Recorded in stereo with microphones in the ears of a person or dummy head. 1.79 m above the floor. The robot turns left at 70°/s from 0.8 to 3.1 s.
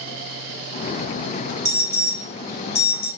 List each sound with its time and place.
1.6 s an alarm: 145° right, 1.3 m; by 3.1 s 115° left, 1.3 m